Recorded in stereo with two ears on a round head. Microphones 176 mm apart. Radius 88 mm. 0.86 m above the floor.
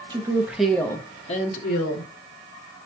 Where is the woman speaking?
20° right (ahead or behind), 0.9 m; by 2.1 s 60° left (ahead or behind), 1.1 m.